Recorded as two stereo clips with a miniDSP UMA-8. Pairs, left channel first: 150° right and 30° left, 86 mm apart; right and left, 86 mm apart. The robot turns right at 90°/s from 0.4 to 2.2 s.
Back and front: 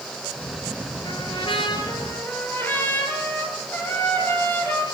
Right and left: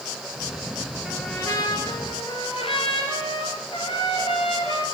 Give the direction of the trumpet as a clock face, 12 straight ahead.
6 o'clock.